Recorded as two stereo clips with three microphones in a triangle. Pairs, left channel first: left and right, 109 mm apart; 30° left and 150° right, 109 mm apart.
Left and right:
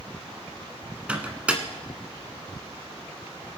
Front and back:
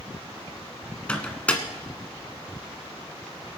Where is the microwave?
30° right, 1.3 m.